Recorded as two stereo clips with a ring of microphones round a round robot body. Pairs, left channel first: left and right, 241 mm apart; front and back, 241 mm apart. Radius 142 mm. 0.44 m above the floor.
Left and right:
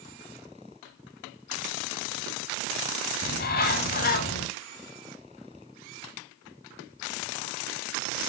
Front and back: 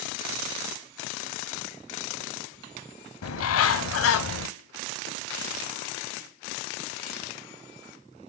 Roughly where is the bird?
Ahead left.